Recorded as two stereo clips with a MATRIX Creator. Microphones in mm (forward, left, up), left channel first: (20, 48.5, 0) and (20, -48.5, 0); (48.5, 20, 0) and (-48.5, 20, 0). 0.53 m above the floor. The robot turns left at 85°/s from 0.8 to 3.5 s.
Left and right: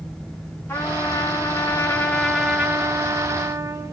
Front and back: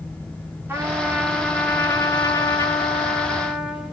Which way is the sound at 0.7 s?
130° left.